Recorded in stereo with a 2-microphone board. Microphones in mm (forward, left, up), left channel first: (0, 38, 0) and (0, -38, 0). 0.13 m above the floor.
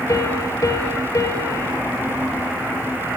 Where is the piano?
50° left (ahead or behind), 1.4 m.